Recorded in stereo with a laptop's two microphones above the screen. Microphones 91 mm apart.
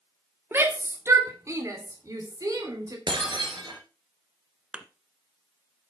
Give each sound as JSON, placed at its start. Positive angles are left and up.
{"t": 0.5, "sound": "a shout", "side_deg": -25, "distance_m": 1.9}
{"t": 3.1, "sound": "breaking glass", "side_deg": -65, "distance_m": 3.0}
{"t": 4.7, "sound": "a thud", "side_deg": -10, "distance_m": 1.4}